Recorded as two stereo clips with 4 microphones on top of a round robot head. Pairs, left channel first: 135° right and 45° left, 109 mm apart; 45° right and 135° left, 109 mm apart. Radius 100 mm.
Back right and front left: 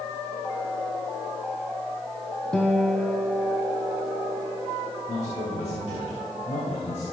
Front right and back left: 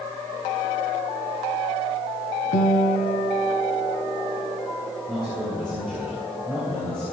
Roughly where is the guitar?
Ahead right.